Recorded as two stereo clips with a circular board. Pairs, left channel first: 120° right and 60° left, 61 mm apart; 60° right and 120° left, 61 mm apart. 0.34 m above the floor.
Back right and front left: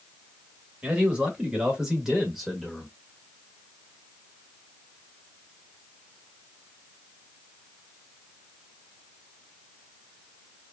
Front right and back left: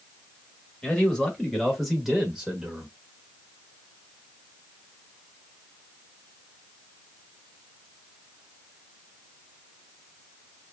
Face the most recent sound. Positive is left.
turn(degrees=150)